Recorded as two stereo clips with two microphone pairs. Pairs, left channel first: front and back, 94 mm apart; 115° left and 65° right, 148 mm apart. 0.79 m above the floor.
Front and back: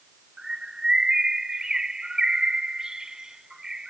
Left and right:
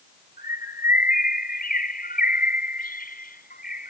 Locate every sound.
0.4 s a bird: 100° left